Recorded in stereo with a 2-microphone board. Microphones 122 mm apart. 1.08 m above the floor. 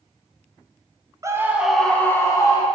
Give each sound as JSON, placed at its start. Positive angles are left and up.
{"t": 1.2, "sound": "a scream", "side_deg": -25, "distance_m": 0.9}